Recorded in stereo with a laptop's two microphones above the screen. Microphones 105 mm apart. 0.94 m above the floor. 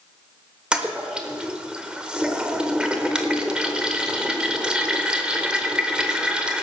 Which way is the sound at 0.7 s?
10° right (ahead or behind).